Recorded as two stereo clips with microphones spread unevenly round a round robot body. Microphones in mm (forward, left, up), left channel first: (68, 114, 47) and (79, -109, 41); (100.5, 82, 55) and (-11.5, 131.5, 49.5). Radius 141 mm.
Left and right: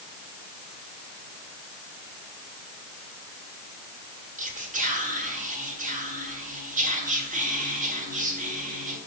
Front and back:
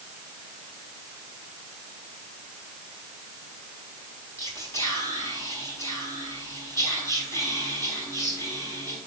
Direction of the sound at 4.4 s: 75° right.